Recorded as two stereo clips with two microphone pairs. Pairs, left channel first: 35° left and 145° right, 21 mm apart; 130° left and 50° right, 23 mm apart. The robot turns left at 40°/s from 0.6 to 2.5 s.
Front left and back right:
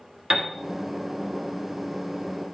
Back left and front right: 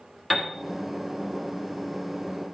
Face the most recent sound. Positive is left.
turn(degrees=130)